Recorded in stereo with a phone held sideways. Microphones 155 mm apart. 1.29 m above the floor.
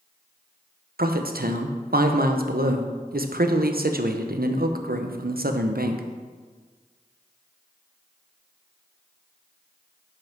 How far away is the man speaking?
About 0.8 m.